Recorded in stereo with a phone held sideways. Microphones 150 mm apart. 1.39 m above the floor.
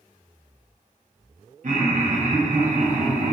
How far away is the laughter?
About 0.5 m.